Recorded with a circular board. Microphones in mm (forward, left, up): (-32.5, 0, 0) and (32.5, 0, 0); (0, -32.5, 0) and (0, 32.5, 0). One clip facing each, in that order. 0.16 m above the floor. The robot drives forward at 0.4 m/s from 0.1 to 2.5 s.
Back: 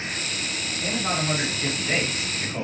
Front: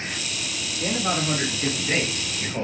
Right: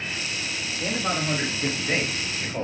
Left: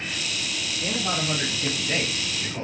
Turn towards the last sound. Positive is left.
turn(degrees=-110)